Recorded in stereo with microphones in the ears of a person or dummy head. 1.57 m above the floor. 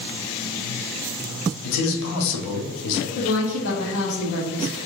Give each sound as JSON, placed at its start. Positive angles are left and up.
{"t": 1.6, "sound": "a man speaking", "side_deg": 65, "distance_m": 1.0}
{"t": 3.1, "sound": "a woman speaking", "side_deg": 75, "distance_m": 1.1}